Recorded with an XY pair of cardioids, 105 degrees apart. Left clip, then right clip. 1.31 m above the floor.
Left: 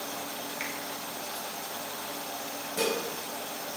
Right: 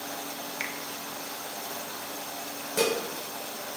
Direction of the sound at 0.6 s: 35° right.